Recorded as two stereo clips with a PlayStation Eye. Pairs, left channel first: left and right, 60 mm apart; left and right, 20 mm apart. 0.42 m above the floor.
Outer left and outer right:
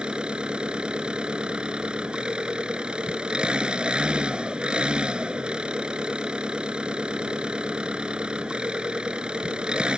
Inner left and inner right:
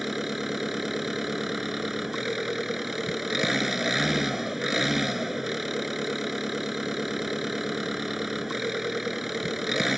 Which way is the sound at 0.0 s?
15° right (ahead or behind).